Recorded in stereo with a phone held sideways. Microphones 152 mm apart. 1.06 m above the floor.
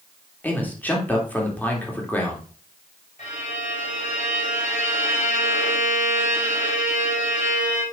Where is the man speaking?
10° left (ahead or behind), 2.5 m.